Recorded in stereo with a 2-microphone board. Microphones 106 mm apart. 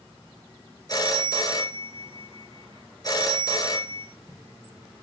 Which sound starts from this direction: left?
A phone ringing, at 0.9 s.